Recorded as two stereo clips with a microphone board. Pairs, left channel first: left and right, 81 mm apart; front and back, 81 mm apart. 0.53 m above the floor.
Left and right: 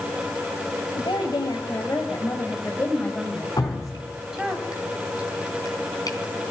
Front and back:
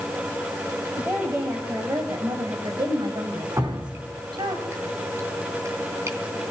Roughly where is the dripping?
Behind left.